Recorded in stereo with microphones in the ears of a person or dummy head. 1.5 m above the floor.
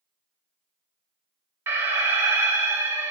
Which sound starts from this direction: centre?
An alarm, at 1.7 s.